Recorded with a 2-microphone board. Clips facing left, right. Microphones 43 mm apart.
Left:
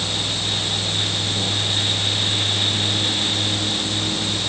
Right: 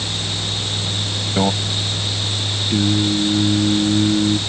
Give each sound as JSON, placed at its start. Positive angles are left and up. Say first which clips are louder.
{"t": 1.4, "sound": "a microwave", "louder": "right 8 dB", "side_deg": -60}
{"t": 2.7, "sound": "singing", "louder": "right 5 dB", "side_deg": -55}